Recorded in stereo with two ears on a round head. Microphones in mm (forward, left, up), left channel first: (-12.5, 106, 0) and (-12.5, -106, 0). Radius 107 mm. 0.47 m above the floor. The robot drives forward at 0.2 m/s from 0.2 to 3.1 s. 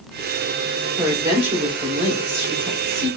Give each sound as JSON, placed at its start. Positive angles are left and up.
{"t": 1.0, "sound": "a woman speaking", "side_deg": -20, "distance_m": 1.2}